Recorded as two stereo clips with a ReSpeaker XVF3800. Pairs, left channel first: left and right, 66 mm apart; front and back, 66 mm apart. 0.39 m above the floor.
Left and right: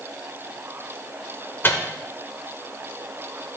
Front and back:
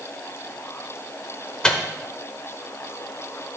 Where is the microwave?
65° left, 0.9 m.